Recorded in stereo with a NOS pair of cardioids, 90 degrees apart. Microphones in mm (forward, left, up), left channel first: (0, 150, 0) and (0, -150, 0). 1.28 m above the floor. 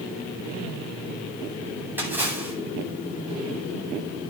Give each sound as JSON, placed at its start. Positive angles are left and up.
{"t": 2.0, "sound": "a splash", "azimuth_deg": -5, "distance_m": 9.5}